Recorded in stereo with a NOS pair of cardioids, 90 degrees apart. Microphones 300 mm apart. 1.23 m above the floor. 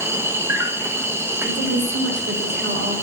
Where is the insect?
10° right, 1.4 m.